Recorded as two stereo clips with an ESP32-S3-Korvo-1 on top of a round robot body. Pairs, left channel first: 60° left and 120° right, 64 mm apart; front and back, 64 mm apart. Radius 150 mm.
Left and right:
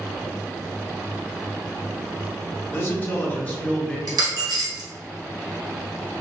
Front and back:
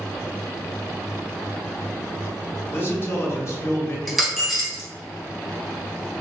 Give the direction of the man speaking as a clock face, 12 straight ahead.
11 o'clock.